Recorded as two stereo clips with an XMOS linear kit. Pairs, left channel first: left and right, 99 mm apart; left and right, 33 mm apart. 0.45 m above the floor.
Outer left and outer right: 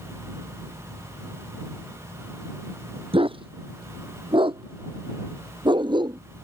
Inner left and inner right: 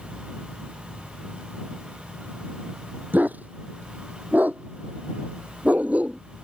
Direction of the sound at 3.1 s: 65° right (ahead or behind).